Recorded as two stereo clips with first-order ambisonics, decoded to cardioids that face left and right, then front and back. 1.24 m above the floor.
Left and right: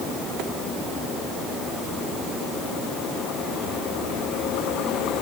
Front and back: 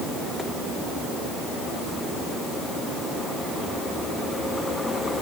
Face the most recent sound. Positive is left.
No sound to turn to.